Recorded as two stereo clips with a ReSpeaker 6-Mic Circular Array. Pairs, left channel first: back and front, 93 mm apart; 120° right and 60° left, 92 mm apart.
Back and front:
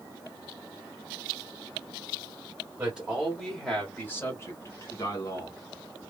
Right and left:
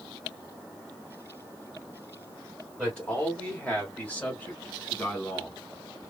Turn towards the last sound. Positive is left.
turn(degrees=175)